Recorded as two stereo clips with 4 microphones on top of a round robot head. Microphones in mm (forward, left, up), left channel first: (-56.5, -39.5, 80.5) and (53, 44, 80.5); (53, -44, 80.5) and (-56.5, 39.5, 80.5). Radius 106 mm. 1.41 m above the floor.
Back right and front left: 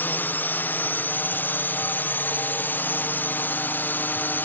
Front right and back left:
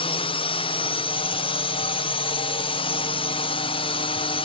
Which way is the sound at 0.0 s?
70° right.